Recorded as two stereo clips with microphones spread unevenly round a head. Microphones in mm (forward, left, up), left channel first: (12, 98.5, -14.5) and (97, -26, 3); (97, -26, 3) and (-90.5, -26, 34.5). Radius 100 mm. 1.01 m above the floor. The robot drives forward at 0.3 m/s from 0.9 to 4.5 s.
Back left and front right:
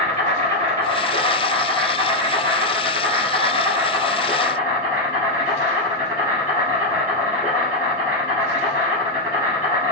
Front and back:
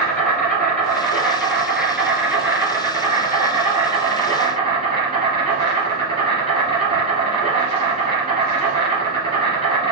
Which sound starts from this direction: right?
An insect, at 0.0 s.